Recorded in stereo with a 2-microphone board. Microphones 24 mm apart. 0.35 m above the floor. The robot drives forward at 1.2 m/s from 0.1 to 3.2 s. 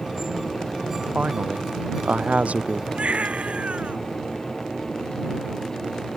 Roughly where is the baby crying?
Right.